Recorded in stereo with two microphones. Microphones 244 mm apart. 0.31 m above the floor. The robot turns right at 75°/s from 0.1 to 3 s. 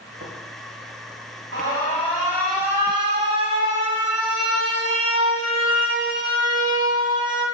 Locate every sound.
0.2 s tapping: 50° right (ahead or behind), 0.9 m; by 0.3 s 45° right (ahead or behind), 0.9 m
1.5 s an alarm: 105° left, 1.4 m; by 7.5 s 140° right, 1.4 m